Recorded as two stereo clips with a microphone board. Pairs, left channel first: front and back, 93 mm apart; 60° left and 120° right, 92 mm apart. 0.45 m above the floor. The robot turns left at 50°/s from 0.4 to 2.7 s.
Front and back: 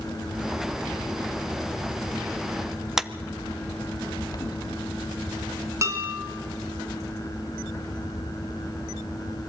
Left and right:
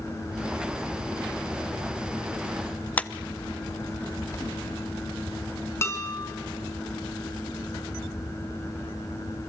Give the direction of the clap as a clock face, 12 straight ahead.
9 o'clock.